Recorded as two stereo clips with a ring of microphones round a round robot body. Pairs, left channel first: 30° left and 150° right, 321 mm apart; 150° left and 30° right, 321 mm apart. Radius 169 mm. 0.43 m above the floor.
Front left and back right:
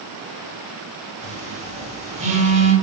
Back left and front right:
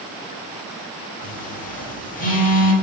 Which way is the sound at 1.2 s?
175° left.